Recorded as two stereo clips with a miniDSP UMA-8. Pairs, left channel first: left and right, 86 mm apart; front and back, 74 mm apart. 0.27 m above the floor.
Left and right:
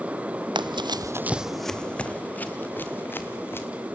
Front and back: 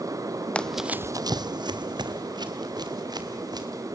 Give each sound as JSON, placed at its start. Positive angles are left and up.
{"t": 0.6, "sound": "running footsteps", "azimuth_deg": -75, "distance_m": 0.6}